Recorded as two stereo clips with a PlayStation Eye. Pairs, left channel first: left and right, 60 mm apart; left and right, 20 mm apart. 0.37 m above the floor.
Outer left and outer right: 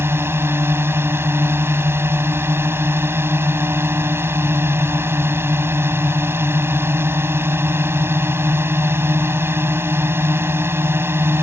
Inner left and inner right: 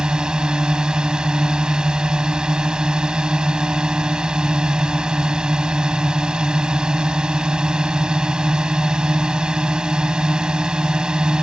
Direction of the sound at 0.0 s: 40° right (ahead or behind).